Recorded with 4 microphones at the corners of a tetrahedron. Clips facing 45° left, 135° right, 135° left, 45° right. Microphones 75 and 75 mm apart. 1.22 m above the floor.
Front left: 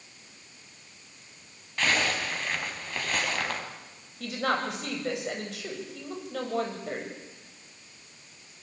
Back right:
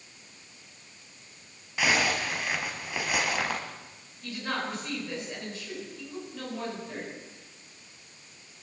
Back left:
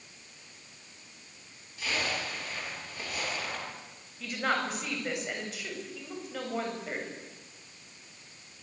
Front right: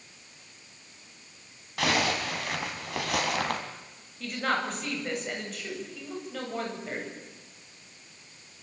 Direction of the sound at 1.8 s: 55° right.